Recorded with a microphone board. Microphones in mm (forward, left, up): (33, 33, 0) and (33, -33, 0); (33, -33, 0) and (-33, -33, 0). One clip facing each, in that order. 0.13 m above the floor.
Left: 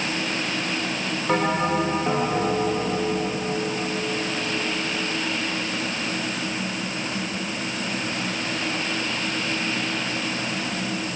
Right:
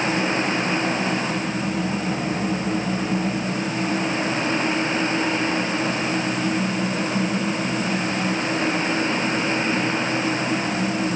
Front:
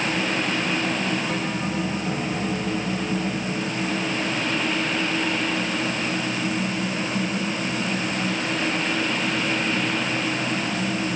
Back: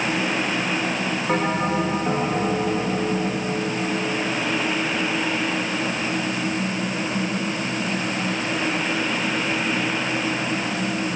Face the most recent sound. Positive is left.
turn(degrees=130)